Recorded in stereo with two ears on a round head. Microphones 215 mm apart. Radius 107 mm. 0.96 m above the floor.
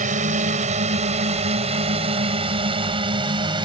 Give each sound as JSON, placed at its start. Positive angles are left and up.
{"t": 0.0, "sound": "a drone", "side_deg": -30}